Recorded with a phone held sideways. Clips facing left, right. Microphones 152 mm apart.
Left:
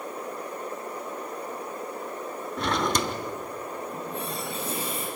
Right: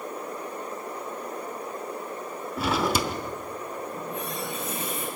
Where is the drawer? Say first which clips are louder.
Right 1 dB; 5° right (ahead or behind), 1.1 m.